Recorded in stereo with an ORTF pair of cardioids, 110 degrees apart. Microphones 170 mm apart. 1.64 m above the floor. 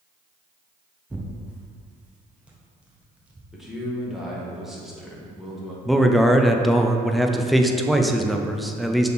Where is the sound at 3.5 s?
Straight ahead, 1.5 m.